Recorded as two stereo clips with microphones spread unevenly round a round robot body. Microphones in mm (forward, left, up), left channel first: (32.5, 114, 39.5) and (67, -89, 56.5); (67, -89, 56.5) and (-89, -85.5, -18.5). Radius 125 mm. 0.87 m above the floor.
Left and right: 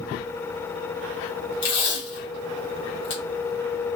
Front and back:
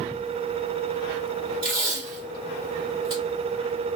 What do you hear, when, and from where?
1.6 s tape being pulled: 110° left, 1.7 m